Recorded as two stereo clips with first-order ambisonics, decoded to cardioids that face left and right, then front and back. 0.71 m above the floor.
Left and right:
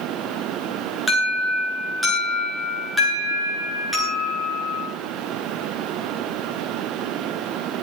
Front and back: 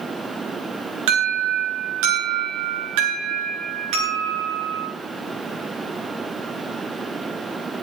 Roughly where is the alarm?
Behind.